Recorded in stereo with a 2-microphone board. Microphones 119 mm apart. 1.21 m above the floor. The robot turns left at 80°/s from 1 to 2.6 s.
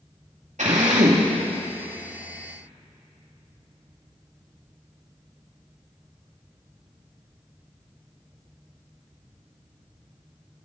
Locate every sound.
0.6 s a drill: 80° right, 2.5 m; by 1.3 s 55° right (ahead or behind), 2.5 m